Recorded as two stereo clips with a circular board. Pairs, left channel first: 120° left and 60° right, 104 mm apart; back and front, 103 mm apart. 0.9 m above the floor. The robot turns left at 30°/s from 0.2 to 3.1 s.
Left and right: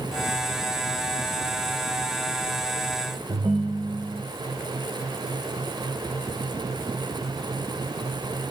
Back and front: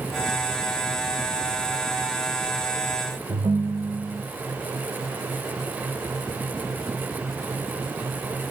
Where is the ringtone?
30° right, 1.1 m.